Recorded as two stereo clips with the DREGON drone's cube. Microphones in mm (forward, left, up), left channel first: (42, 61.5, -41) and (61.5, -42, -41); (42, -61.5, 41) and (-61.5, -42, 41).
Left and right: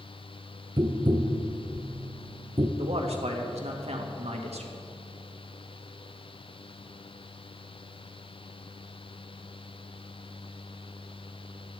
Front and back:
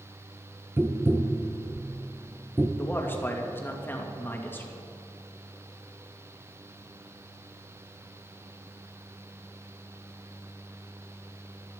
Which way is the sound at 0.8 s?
120° right.